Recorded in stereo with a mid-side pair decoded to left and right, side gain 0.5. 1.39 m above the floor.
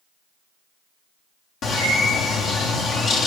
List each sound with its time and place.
1.6 s a bird: 65° left, 0.9 m